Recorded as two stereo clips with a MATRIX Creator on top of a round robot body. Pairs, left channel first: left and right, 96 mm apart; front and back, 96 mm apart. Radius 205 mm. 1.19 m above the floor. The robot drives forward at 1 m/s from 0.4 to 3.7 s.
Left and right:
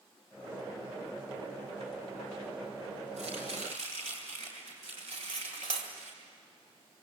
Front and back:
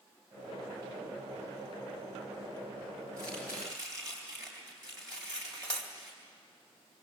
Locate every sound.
3.2 s chopping: 115° right, 4.5 m; by 6.1 s 120° right, 4.5 m
5.1 s cutlery clinking: 135° right, 2 m